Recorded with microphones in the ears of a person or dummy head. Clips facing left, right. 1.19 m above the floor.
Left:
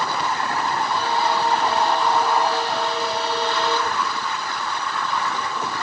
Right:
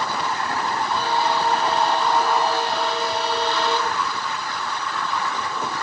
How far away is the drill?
I don't hear a drill.